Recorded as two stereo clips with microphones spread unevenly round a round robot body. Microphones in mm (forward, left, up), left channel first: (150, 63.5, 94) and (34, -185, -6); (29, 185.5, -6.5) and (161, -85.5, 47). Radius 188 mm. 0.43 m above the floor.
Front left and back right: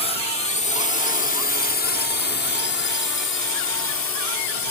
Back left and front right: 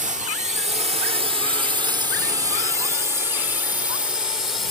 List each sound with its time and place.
0.0 s a drone: 25° right; by 4.7 s 40° left